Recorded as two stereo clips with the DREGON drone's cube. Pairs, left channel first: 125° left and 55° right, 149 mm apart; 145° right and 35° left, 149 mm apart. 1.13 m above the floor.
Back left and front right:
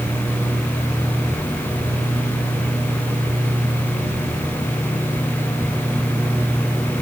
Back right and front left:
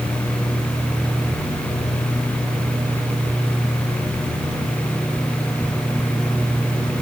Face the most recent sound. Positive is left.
No sound to turn to.